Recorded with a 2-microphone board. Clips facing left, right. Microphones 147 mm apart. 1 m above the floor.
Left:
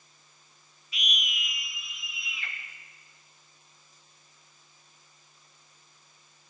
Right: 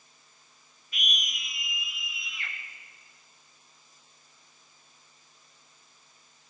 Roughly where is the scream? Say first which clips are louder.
Left 1 dB; right.